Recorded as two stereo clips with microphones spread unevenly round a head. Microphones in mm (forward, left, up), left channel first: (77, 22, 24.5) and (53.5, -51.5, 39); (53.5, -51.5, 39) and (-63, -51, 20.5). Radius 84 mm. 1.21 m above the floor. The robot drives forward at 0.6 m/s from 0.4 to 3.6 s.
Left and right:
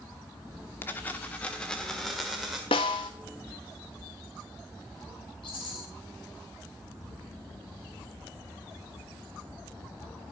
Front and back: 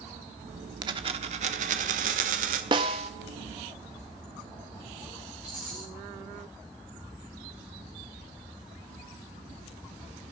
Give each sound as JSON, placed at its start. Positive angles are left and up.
{"t": 0.8, "sound": "a dropped coin", "azimuth_deg": 140, "distance_m": 0.8}
{"t": 2.7, "sound": "a snare drum", "azimuth_deg": 115, "distance_m": 1.0}
{"t": 5.4, "sound": "a rattle", "azimuth_deg": 95, "distance_m": 5.5}